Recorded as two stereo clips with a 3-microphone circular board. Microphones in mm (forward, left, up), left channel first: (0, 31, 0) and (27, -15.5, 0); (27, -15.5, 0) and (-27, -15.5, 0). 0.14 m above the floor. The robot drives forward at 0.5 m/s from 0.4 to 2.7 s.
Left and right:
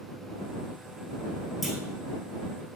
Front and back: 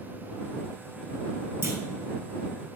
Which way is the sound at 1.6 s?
145° right.